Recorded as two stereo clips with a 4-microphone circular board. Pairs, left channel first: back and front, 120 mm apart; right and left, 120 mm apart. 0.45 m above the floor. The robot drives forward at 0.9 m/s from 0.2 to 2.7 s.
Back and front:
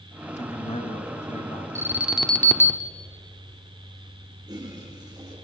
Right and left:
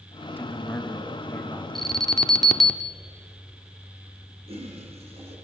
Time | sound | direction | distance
0.4 | a man speaking | 160° right | 2 m
1.8 | an alarm | 5° right | 1.0 m
4.5 | a toilet flushing | 55° left | 5 m